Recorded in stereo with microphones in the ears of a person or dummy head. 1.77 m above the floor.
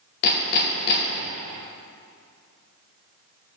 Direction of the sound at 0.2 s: 50° left (ahead or behind).